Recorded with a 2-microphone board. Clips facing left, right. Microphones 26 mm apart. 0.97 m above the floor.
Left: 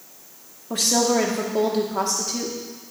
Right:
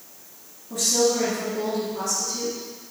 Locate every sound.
0.7 s a woman speaking: 60° left (ahead or behind), 1.6 m